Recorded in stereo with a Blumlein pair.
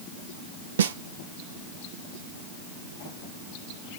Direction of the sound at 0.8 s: 65° right.